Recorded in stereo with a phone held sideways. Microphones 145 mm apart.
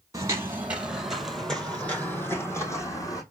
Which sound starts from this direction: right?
Footsteps, at 0.1 s.